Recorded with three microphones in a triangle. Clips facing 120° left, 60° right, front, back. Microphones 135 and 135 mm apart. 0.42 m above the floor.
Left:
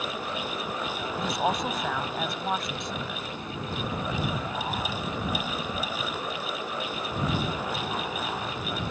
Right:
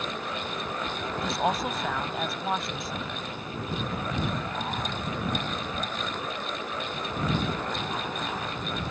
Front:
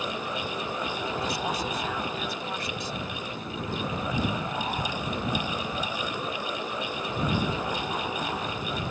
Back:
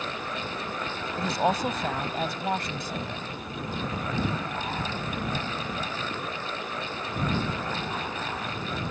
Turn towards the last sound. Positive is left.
turn(degrees=-150)